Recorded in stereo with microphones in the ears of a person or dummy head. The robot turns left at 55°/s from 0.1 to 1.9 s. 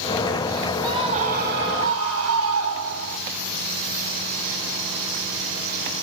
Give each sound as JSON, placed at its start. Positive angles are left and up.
{"t": 0.8, "sound": "a scream", "azimuth_deg": -20, "distance_m": 6.5}